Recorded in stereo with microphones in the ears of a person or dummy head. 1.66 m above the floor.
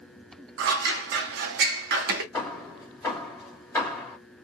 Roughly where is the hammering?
Left.